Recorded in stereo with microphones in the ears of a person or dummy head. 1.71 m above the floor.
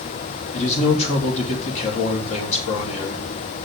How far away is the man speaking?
About 3 m.